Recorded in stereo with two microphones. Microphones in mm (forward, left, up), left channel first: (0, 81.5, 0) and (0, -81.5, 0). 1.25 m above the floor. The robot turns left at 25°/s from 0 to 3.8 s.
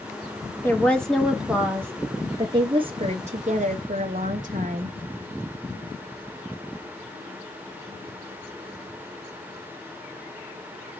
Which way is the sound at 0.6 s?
15° left.